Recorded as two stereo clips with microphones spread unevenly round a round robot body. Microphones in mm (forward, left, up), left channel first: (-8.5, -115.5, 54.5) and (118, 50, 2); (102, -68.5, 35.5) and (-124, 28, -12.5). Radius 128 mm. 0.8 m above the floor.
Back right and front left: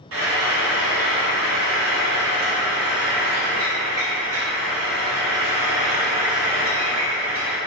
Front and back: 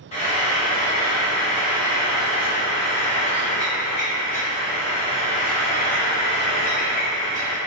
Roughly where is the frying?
Ahead left.